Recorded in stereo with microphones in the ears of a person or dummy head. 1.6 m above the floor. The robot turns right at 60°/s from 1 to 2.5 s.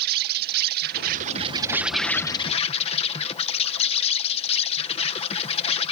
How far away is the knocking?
I don't hear knocking.